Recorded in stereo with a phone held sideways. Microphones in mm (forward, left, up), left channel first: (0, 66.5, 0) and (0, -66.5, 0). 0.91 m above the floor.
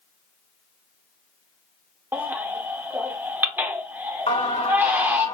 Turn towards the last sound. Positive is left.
turn(degrees=55)  # may be behind; listen again after turning